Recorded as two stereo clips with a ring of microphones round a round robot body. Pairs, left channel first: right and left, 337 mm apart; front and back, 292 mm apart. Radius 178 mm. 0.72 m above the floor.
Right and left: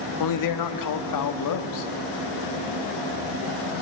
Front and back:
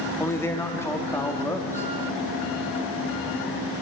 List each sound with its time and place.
0.2 s a man speaking: 80° right, 1.5 m